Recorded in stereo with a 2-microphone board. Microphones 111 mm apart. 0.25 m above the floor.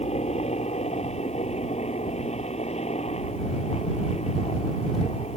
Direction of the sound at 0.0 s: 75° left (ahead or behind).